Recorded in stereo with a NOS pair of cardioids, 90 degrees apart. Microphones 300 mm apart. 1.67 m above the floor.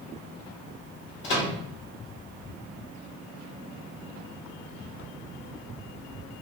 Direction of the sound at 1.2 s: 40° left.